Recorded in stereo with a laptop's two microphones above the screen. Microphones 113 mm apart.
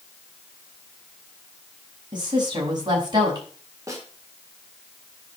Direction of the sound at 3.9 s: 30° right (ahead or behind).